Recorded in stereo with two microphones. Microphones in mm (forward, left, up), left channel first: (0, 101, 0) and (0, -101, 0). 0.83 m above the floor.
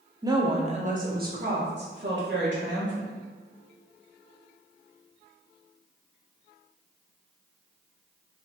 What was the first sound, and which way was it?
A woman speaking, 15° right (ahead or behind).